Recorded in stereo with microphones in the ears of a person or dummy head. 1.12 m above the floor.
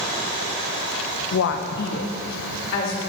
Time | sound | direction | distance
1.3 | a woman speaking | 60° left (ahead or behind) | 0.5 m